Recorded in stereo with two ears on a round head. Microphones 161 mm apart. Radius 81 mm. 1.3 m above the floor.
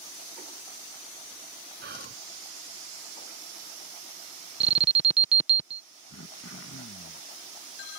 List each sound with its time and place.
1.8 s whispering: 55° right (ahead or behind)
4.6 s an alarm: 35° right (ahead or behind)
6.1 s throat clearing: 75° left (ahead or behind)